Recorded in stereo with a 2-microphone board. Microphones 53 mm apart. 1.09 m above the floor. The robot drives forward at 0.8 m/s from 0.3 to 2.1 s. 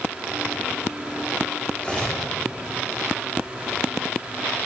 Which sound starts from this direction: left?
Cutlery clinking, at 1.8 s.